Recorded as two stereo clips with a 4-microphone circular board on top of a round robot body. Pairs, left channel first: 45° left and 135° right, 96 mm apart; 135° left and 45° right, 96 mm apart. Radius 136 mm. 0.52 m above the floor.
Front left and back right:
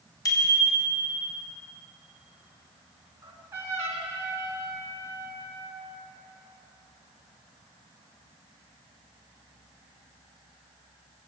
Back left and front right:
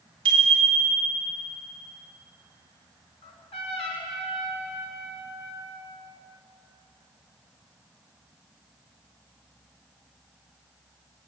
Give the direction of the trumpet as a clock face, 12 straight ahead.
7 o'clock.